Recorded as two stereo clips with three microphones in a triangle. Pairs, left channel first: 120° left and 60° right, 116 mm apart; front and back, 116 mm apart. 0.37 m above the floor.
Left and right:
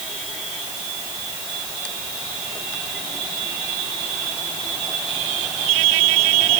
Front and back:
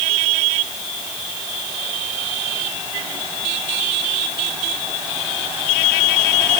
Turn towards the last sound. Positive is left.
No sound to turn to.